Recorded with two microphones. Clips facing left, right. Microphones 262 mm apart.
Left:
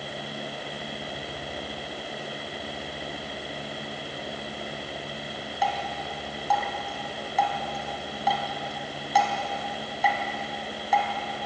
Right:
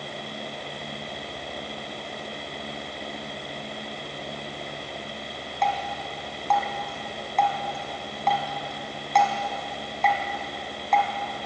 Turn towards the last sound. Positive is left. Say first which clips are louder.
# right 2 dB
turn(degrees=5)  # may be behind; listen again after turning